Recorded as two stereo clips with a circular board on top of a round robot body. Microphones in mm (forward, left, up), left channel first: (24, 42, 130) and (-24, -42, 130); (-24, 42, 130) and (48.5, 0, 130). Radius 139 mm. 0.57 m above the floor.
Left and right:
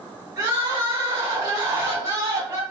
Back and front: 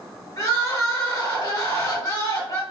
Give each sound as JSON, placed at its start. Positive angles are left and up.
{"t": 0.4, "sound": "crying", "azimuth_deg": -170, "distance_m": 1.6}